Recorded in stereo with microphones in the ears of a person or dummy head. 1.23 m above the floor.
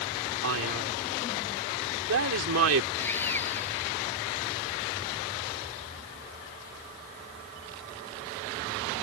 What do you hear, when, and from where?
0.4 s a man speaking: 80° right
3.0 s sawing: 10° left (ahead or behind)